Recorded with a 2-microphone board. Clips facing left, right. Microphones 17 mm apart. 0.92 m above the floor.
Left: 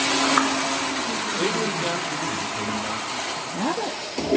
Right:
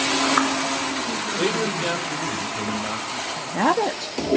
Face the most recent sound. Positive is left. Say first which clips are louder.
# right 9 dB
turn(degrees=-55)  # may be behind; listen again after turning